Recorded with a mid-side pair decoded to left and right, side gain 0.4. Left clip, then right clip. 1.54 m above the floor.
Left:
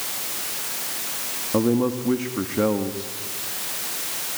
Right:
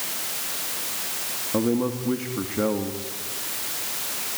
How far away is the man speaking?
About 2.5 m.